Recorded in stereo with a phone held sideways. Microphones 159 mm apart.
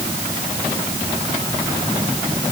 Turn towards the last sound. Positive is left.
No sound to turn to.